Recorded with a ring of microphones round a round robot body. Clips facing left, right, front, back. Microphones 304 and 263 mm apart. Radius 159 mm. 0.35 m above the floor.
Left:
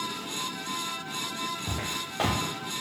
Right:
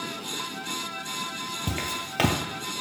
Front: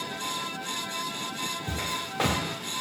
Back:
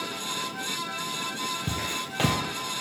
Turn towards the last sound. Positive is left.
turn(degrees=-130)